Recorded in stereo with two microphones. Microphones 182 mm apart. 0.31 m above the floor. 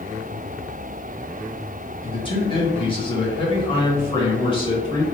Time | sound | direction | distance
2.0 | a man speaking | 30° left (ahead or behind) | 0.9 m